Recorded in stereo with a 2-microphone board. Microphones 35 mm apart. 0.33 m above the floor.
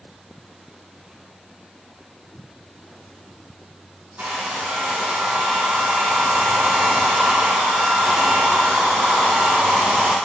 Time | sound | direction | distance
4.2 | a hair dryer | 65° right (ahead or behind) | 4 m